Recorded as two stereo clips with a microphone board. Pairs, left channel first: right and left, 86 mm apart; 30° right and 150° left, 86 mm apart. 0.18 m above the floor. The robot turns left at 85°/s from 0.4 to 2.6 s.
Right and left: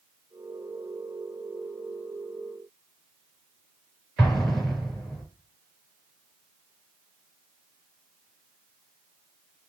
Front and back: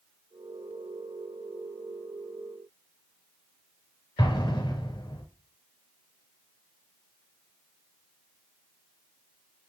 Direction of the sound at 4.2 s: Straight ahead.